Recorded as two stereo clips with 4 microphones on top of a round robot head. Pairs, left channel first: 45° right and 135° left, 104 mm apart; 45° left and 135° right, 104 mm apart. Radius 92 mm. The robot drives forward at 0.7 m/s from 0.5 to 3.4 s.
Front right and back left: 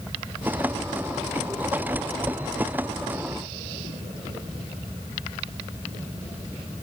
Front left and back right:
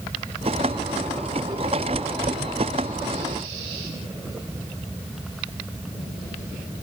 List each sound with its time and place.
Only background noise.